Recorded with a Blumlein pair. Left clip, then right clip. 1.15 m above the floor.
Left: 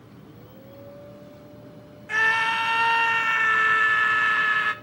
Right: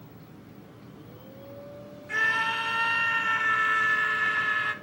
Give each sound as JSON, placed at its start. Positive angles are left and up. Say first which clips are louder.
{"t": 2.1, "sound": "a scream", "louder": "left 4 dB", "azimuth_deg": 70, "distance_m": 1.1}